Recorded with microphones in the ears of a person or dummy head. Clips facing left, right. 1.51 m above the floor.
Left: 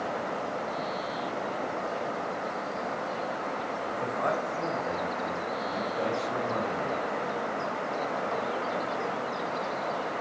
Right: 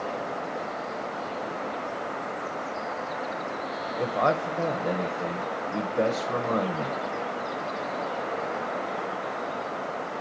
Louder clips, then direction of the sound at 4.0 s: Right 6 dB; 70° right (ahead or behind).